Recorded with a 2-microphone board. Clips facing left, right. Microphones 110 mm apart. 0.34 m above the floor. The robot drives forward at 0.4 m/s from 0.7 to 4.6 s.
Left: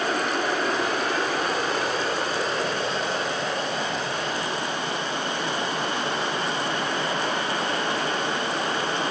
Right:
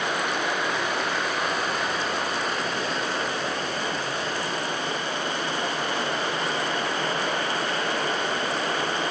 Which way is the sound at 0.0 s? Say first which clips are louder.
Left 2 dB; 35° left (ahead or behind).